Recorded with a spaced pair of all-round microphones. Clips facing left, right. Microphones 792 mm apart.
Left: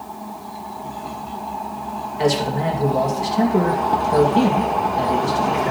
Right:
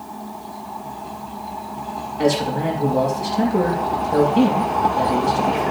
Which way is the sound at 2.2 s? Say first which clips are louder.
Right 1 dB; 35° left (ahead or behind).